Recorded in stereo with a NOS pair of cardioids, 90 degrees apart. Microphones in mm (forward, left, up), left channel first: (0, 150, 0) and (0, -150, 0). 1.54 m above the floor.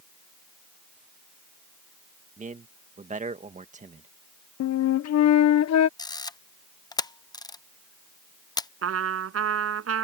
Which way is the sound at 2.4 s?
25° right.